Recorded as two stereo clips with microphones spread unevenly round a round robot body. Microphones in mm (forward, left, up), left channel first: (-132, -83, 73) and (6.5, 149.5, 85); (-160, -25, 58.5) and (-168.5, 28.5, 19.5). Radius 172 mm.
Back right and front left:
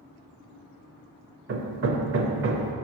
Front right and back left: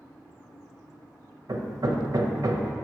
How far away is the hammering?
About 0.9 m.